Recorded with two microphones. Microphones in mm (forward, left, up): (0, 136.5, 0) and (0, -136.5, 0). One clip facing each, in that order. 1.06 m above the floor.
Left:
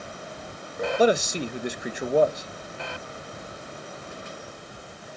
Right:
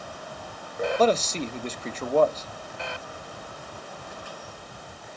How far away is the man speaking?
About 0.9 m.